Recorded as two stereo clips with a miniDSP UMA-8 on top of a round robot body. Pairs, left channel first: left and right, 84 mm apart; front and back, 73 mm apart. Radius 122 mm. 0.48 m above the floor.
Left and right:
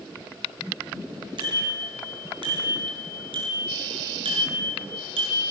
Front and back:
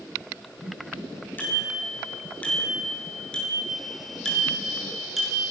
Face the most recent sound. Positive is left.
turn(degrees=-90)